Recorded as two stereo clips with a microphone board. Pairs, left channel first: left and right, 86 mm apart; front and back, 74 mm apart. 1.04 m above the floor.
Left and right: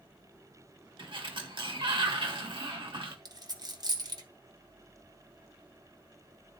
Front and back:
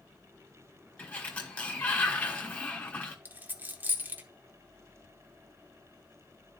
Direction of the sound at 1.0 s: 70° right.